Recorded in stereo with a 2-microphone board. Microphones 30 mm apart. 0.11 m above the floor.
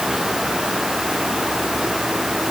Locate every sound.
Only background noise.